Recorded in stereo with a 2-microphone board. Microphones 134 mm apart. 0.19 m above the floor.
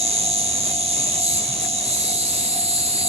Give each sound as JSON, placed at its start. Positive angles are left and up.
{"t": 0.0, "sound": "an insect", "side_deg": -50, "distance_m": 0.9}